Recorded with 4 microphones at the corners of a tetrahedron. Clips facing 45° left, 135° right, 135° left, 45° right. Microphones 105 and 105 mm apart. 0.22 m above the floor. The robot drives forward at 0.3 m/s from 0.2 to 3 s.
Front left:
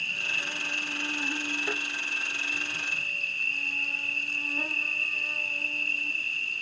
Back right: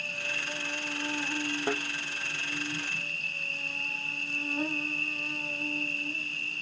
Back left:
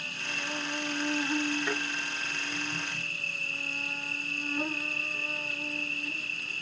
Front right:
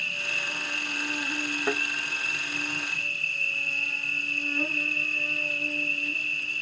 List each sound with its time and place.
0.0 s an insect: 170° left, 2 m; by 6.6 s 175° left, 2.5 m
1.7 s a thud: 100° right, 3 m